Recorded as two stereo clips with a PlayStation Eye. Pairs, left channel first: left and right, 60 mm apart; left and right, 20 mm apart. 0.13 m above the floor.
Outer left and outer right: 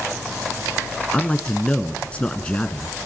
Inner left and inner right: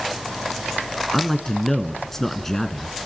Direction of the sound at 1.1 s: 20° left (ahead or behind).